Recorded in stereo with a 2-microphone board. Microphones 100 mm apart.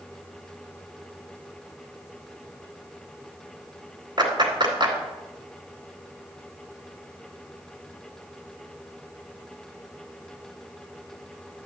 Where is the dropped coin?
No dropped coin in this recording.